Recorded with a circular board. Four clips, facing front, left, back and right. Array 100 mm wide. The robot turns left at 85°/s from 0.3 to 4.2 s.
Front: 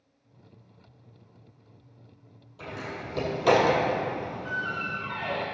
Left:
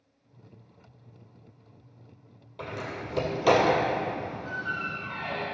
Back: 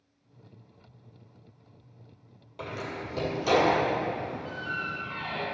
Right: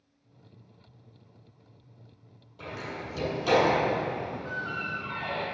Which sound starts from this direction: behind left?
A door slam, at 2.6 s.